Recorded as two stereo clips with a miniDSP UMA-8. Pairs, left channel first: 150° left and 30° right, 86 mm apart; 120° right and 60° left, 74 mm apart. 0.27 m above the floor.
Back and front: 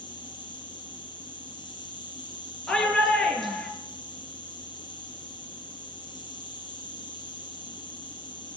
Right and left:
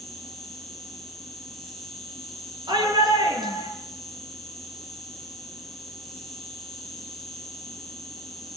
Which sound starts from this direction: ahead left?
A shout, at 2.7 s.